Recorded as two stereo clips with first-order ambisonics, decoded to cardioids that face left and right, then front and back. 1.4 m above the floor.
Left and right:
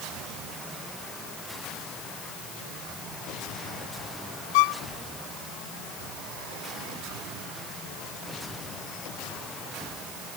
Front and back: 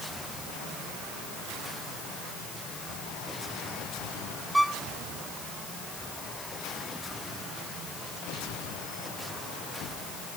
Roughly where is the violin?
Left.